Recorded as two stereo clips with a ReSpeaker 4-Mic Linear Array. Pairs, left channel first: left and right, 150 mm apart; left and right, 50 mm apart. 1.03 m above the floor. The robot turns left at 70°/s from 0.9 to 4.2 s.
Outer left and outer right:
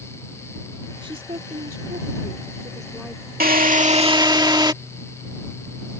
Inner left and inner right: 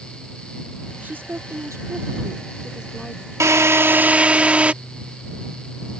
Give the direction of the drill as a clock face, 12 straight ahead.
3 o'clock.